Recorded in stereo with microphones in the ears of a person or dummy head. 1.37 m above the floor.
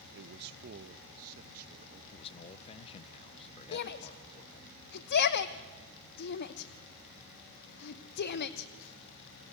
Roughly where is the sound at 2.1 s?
Left.